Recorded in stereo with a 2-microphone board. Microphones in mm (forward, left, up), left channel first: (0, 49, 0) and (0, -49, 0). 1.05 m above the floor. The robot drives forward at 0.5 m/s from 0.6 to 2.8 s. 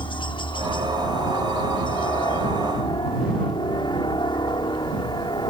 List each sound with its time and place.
0.0 s a helicopter: 55° left (ahead or behind); by 5.5 s 50° left (ahead or behind)